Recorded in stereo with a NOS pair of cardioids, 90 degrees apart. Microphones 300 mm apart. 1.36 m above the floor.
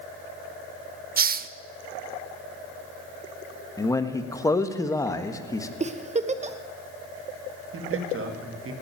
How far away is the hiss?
About 0.7 m.